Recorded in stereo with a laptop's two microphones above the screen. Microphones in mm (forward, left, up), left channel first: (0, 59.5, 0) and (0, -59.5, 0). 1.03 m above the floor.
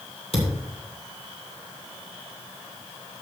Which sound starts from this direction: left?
A thud, at 0.3 s.